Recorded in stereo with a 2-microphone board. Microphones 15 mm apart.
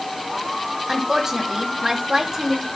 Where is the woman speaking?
40° right (ahead or behind), 3 m.